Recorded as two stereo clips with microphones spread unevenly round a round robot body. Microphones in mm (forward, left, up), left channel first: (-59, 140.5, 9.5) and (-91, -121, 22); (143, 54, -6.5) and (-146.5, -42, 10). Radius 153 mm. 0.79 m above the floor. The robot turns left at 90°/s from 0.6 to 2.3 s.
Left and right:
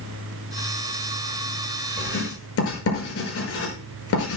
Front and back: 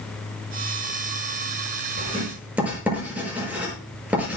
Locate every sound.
2.0 s writing: 145° left, 6.5 m; by 4.4 s 115° left, 6.5 m